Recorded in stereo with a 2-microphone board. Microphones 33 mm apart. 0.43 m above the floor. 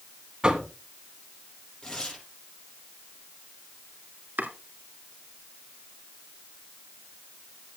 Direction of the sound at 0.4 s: 25° right (ahead or behind).